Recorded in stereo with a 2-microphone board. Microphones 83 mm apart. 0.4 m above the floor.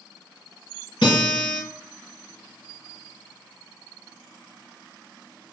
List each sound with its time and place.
1.0 s a guitar: 70° left (ahead or behind), 1.7 m